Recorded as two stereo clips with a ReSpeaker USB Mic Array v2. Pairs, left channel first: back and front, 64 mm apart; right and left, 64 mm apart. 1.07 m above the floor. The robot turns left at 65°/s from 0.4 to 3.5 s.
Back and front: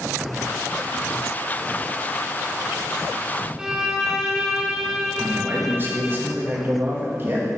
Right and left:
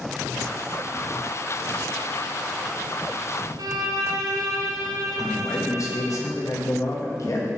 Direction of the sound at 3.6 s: 80° left.